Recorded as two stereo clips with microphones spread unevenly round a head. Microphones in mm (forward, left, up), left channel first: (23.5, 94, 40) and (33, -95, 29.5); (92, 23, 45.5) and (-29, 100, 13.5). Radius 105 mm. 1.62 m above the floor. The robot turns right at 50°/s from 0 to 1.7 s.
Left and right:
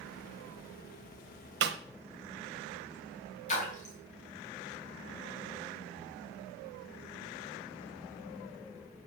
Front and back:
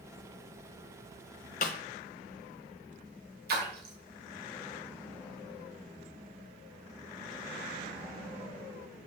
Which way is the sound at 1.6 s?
60° right.